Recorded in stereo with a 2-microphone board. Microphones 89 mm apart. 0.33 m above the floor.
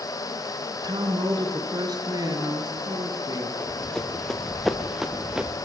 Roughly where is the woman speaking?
Right.